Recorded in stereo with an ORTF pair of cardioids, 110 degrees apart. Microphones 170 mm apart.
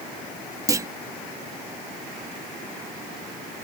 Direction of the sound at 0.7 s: 20° right.